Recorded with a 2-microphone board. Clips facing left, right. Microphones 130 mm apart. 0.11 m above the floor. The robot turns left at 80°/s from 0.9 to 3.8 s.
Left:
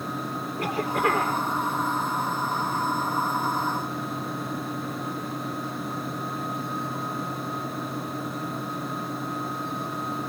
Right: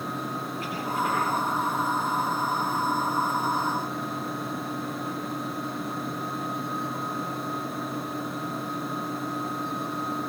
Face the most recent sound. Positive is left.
turn(degrees=-130)